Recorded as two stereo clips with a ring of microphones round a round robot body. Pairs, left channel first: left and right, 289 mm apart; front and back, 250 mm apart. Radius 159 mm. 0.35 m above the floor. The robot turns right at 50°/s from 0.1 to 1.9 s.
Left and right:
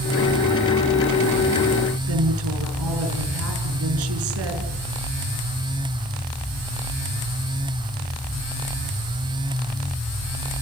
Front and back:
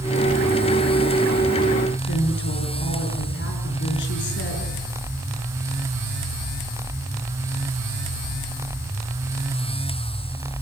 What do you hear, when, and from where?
2.1 s a woman speaking: 50° right, 5.5 m